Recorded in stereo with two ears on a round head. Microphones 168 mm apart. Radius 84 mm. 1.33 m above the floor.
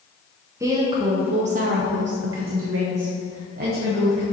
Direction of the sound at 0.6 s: 15° right (ahead or behind).